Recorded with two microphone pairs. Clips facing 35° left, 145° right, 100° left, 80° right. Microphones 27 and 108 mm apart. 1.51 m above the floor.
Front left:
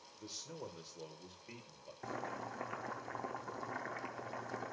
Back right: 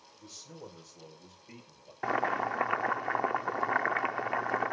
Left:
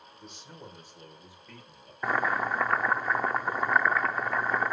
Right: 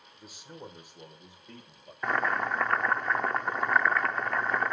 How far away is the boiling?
About 0.6 m.